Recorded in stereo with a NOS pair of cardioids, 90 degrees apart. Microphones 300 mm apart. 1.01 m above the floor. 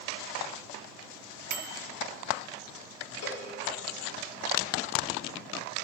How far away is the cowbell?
About 4.5 m.